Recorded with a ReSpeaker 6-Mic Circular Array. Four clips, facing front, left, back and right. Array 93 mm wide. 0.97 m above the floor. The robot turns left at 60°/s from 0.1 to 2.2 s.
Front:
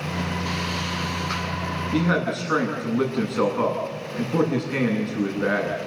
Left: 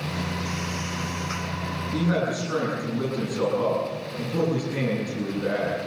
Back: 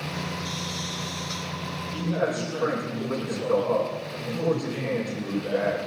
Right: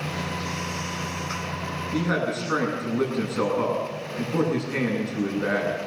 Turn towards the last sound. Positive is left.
turn(degrees=-20)